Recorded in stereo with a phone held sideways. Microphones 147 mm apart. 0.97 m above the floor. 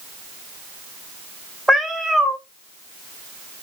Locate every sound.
1.7 s a cat meowing: centre (ahead or behind), 0.7 m